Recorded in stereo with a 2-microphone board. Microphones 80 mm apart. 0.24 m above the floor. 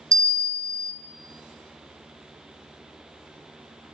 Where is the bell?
50° right (ahead or behind), 0.6 m.